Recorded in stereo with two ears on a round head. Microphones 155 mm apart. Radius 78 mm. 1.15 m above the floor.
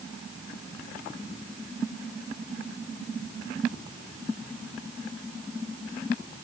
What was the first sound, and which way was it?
Only background noise.